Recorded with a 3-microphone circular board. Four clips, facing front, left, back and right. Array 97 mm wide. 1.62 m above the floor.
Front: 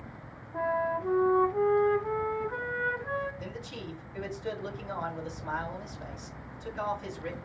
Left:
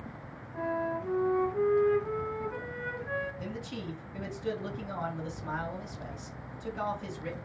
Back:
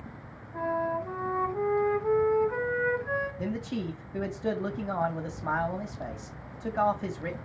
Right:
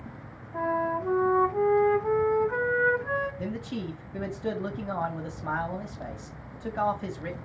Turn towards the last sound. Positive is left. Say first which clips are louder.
# right 5 dB, back 8 dB
turn(degrees=-150)